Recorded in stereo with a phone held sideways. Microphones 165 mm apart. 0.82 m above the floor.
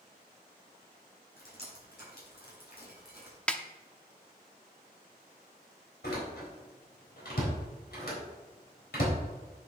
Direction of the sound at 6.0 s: 75° left (ahead or behind).